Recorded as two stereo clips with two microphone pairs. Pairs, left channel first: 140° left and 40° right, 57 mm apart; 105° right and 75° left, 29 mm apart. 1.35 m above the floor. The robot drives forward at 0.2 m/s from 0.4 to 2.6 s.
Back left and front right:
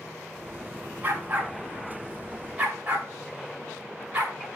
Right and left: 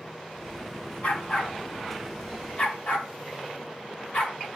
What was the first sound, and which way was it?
A dog barking, 100° right.